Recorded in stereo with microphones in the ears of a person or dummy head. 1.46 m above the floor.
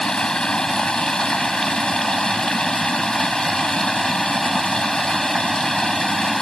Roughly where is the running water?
Centre.